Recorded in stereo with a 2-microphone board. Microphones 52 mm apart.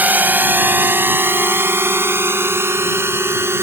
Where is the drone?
30° right (ahead or behind); by 3.6 s 50° right (ahead or behind).